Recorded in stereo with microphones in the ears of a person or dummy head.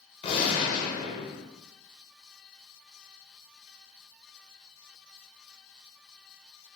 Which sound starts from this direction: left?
A gunshot, at 0.2 s.